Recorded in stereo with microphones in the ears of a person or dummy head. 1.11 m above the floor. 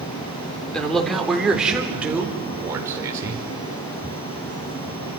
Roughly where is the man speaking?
Centre.